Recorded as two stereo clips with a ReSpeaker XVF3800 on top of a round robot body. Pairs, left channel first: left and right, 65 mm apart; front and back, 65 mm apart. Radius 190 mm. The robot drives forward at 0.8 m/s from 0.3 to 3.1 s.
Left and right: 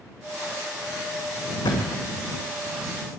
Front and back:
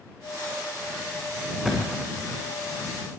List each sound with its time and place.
1.6 s a thud: 95° left, 4 m; by 2.3 s 105° left, 4.5 m